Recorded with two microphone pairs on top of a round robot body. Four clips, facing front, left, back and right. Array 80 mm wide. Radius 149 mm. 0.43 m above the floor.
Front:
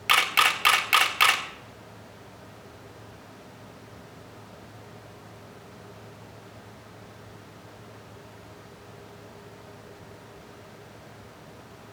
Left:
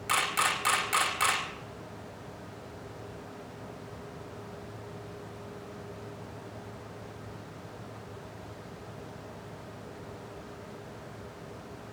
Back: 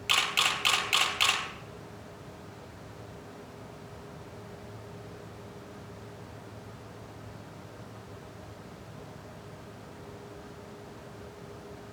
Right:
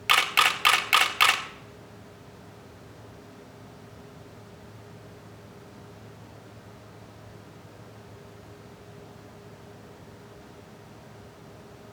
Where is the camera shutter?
55° right, 2 m.